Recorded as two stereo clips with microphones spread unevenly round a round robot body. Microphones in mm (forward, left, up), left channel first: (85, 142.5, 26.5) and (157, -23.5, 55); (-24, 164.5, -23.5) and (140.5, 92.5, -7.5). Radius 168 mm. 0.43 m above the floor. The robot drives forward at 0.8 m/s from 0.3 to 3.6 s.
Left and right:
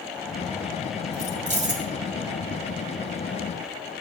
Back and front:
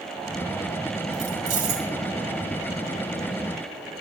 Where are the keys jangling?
40° right, 2 m; by 1.9 s 55° right, 1.7 m.